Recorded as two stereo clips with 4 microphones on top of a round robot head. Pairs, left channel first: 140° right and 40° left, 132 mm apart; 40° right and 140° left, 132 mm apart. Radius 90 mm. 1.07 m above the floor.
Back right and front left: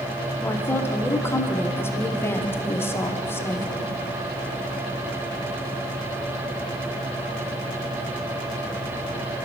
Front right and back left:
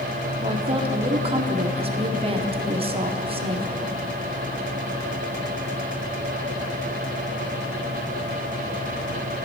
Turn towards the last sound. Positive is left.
turn(degrees=155)